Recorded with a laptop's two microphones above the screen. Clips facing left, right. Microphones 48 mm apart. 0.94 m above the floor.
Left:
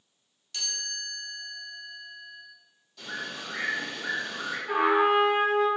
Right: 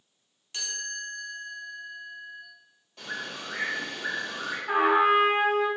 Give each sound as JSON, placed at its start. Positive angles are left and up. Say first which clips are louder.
{"t": 0.5, "sound": "a chime", "louder": "right 2 dB", "side_deg": -25, "distance_m": 0.9}
{"t": 3.0, "sound": "a bird", "louder": "even", "side_deg": -45, "distance_m": 1.2}
{"t": 4.7, "sound": "a trumpet", "louder": "right 1 dB", "side_deg": -30, "distance_m": 0.8}